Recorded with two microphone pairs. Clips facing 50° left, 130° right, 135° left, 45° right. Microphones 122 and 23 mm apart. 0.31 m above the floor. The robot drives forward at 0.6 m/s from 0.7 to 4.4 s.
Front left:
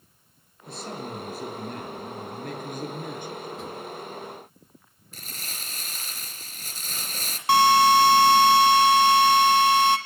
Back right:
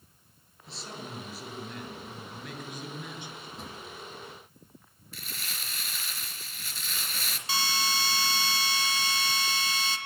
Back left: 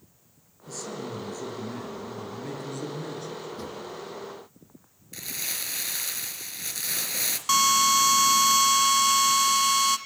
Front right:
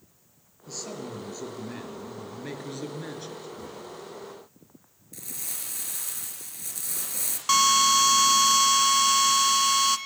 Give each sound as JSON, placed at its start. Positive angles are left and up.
{"t": 0.7, "sound": "a man speaking", "azimuth_deg": 5, "distance_m": 7.5}
{"t": 3.6, "sound": "a drawer", "azimuth_deg": 135, "distance_m": 8.0}
{"t": 5.1, "sound": "crumpling", "azimuth_deg": 95, "distance_m": 3.0}
{"t": 7.5, "sound": "a drill", "azimuth_deg": 35, "distance_m": 2.0}